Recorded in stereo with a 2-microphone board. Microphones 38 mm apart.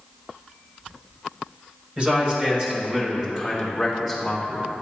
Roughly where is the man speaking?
Right.